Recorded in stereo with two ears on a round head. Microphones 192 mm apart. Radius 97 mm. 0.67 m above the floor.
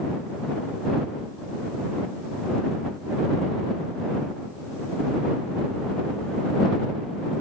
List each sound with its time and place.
Only background noise.